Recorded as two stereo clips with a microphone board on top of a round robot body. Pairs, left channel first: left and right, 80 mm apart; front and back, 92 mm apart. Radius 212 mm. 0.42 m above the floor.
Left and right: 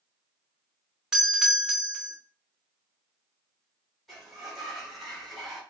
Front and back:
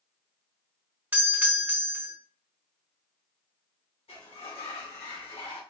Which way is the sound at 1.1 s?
160° right.